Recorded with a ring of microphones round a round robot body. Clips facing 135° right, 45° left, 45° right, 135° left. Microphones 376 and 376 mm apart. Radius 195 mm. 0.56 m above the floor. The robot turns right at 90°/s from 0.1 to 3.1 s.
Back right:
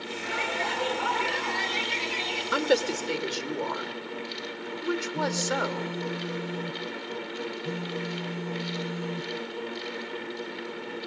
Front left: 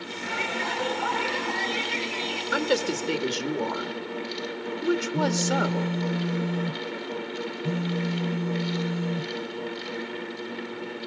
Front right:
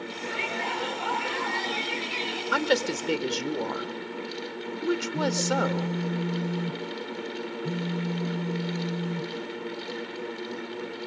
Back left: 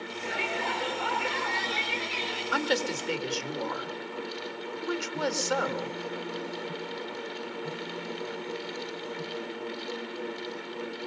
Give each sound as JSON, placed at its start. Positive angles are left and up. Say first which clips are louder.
{"t": 0.2, "sound": "a shout", "louder": "front left 2 dB, back left 1 dB", "azimuth_deg": 25, "distance_m": 9.0}
{"t": 2.5, "sound": "a woman speaking", "louder": "back right 1 dB, front right 4 dB", "azimuth_deg": -55, "distance_m": 1.7}
{"t": 5.1, "sound": "a phone buzzing", "louder": "front left 4 dB, front right 3 dB", "azimuth_deg": 25, "distance_m": 0.7}